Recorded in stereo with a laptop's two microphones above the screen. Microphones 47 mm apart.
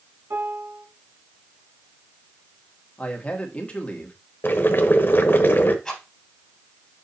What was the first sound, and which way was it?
A piano, 70° right (ahead or behind).